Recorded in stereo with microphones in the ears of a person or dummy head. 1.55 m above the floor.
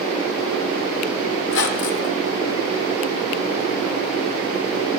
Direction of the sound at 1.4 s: 65° left (ahead or behind).